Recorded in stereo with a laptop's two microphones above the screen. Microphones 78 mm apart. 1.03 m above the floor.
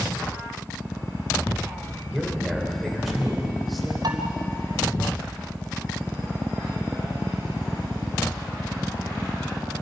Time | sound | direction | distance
2.1 | a man speaking | centre (ahead or behind) | 4 m
4.0 | dishes clattering | 70° right (ahead or behind) | 3.5 m